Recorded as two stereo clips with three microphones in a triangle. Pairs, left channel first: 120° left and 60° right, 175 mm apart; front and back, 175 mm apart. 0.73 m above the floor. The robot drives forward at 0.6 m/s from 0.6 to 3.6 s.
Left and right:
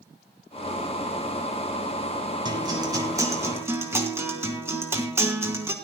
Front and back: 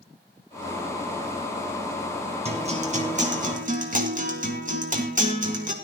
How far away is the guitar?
About 2.5 m.